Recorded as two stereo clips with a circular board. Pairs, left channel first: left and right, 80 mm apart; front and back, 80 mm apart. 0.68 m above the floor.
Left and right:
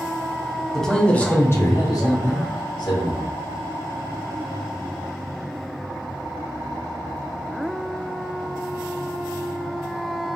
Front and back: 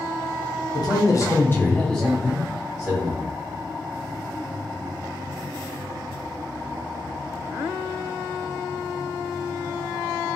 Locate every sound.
0.7 s a man speaking: 5° left, 0.8 m; by 3.3 s 115° left, 1.2 m